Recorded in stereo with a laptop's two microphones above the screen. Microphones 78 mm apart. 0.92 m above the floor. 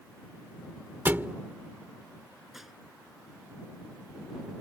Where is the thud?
30° right (ahead or behind).